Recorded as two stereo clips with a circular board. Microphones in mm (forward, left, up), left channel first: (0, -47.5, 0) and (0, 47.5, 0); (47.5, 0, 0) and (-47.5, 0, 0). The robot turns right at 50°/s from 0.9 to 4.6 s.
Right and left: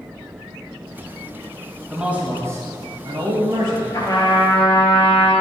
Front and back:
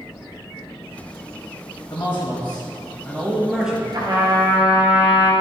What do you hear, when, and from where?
1.9 s a man speaking: 20° left, 1.3 m; by 3.8 s 115° left, 1.3 m
3.9 s a trumpet: 140° right, 2 m; by 5.3 s 105° right, 2 m